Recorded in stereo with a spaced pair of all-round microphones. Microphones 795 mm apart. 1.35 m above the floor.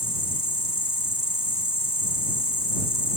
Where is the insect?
25° right (ahead or behind).